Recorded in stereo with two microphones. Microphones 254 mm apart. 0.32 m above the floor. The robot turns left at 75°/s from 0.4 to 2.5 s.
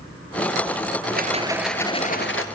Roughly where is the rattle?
Behind right.